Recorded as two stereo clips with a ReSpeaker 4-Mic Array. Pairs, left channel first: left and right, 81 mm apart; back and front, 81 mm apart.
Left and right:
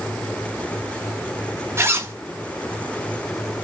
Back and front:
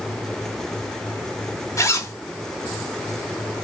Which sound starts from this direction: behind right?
A zipper, at 1.8 s.